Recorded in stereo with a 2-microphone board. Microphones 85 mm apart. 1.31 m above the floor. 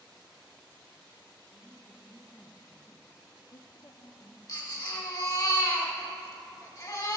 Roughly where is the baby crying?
Left.